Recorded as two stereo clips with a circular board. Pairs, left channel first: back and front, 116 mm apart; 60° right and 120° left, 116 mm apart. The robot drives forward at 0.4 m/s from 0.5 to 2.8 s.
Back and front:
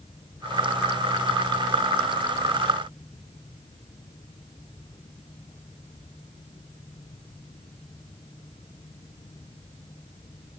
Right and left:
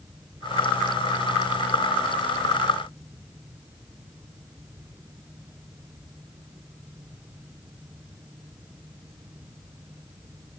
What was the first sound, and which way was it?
Only background noise.